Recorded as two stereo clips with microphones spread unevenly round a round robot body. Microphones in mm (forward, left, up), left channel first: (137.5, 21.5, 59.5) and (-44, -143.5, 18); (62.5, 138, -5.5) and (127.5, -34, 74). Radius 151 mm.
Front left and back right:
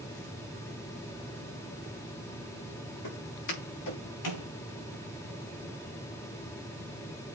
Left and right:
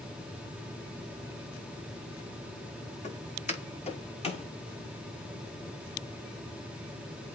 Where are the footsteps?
60° left, 4.5 m; by 4.5 s 50° left, 5.5 m.